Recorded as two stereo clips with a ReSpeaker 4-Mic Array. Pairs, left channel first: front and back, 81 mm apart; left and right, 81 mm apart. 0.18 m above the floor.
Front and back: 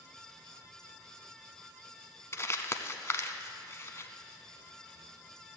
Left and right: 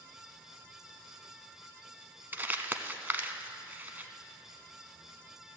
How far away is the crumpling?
About 0.7 m.